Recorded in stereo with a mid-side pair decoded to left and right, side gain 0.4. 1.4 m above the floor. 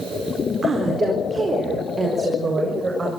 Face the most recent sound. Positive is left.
turn(degrees=-35)